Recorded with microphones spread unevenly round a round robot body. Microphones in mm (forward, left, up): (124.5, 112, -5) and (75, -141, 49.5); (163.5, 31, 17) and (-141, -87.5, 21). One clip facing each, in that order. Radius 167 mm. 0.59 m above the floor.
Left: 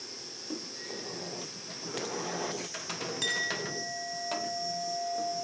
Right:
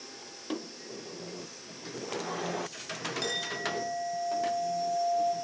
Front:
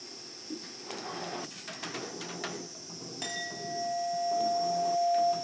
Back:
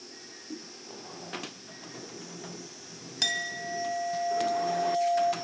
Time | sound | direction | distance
0.0 | an insect | 90° left | 5.5 m
3.2 | a clink | 155° left | 2.5 m